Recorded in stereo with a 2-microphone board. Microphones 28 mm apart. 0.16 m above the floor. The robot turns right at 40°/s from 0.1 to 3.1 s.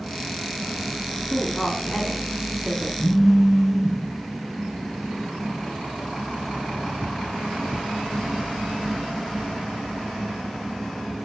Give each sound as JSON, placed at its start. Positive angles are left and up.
{"t": 1.3, "sound": "a woman speaking", "side_deg": 15, "distance_m": 1.1}
{"t": 3.0, "sound": "a phone buzzing", "side_deg": 50, "distance_m": 1.4}